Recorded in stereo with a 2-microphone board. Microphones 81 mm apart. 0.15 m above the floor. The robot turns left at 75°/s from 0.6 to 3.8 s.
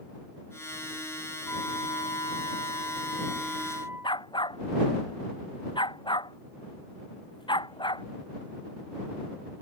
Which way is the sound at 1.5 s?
150° left.